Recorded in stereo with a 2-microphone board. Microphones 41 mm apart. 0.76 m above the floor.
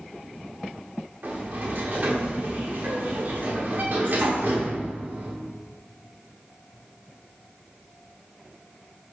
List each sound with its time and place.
1.2 s a sliding door: 55° right (ahead or behind), 0.9 m